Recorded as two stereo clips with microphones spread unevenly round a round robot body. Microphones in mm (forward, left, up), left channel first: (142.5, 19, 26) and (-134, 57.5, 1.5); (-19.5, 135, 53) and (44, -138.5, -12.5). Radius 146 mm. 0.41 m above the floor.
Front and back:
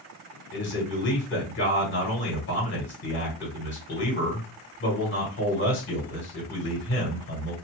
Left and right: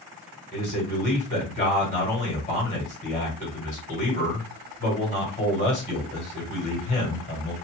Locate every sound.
0.5 s a man speaking: 35° left, 2 m